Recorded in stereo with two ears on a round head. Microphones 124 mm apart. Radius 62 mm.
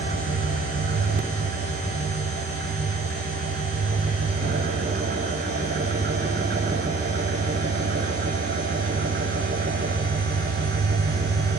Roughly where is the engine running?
Right.